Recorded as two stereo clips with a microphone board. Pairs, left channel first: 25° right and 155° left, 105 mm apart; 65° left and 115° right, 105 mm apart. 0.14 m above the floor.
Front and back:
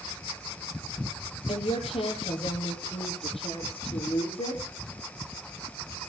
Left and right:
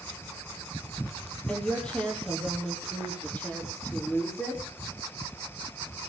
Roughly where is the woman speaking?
Ahead.